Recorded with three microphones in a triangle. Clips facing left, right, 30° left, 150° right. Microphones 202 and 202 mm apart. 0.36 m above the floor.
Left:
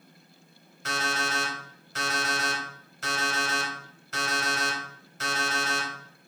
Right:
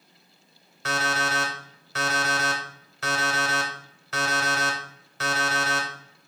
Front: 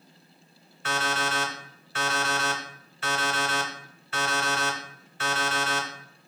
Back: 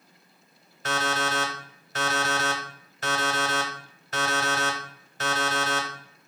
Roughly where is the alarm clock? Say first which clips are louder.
Right 4 dB, back 2 dB; right.